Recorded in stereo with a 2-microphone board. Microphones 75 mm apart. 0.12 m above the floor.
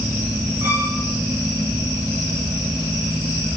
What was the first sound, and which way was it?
A violin, 40° right (ahead or behind).